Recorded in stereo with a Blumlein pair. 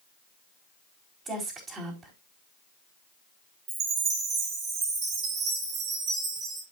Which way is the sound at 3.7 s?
35° right.